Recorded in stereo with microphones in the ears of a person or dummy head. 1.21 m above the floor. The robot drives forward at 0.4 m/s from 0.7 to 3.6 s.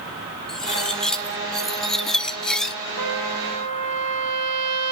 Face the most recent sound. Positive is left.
turn(degrees=-85)